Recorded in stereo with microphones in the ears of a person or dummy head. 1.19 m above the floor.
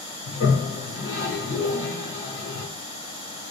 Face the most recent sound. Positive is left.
turn(degrees=50)  # may be behind; listen again after turning